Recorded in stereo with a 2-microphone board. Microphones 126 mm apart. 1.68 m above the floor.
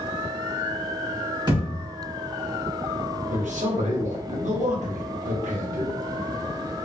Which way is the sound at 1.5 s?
35° right (ahead or behind).